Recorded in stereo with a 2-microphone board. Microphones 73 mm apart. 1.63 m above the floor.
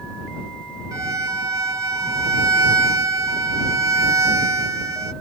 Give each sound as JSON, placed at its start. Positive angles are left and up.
{"t": 0.9, "sound": "a violin", "side_deg": -50}